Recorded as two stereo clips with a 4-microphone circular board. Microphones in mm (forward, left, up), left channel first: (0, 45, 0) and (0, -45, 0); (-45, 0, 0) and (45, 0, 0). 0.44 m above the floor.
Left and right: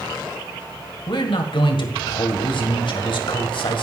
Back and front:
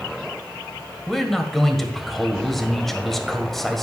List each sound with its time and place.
1.1 s a man speaking: 95° left, 1.6 m